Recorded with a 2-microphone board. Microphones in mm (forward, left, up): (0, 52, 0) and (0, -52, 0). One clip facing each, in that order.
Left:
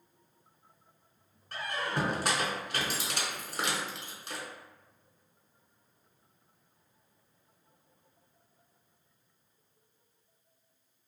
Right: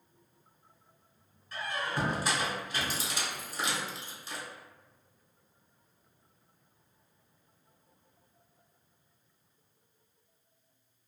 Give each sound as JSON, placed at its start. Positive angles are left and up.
{"t": 1.5, "sound": "a squeak", "side_deg": 65, "distance_m": 0.7}